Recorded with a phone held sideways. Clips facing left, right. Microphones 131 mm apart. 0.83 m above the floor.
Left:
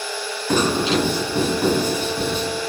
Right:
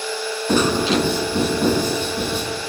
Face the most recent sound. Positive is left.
turn(degrees=-65)  # may be behind; listen again after turning